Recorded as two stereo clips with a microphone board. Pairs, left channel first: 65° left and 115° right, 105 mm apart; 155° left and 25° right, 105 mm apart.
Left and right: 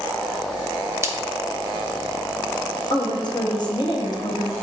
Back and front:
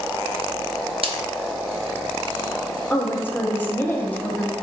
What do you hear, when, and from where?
1.0 s a splash: 50° right, 0.5 m
2.9 s a woman speaking: 95° left, 0.8 m